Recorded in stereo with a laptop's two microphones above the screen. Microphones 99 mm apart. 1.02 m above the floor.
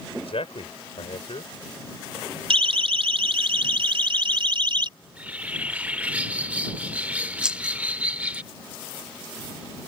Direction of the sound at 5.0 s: 15° right (ahead or behind).